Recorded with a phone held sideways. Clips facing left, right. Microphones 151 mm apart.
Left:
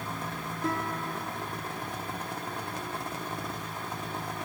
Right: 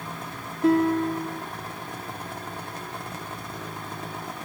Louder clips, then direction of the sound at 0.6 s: Right 13 dB; 70° right (ahead or behind).